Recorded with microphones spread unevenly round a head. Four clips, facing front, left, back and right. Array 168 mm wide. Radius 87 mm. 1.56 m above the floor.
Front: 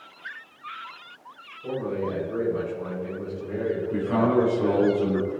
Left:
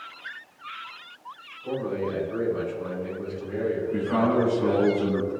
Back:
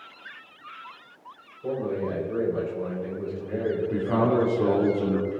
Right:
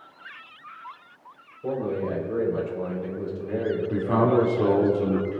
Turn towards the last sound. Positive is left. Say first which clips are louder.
# right 3 dB, front 2 dB
turn(degrees=-85)